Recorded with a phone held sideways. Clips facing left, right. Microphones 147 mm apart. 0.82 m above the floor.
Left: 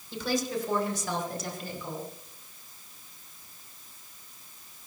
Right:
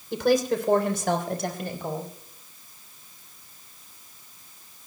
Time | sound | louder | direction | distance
0.1 | a woman speaking | right 8 dB | 75° right (ahead or behind) | 3 m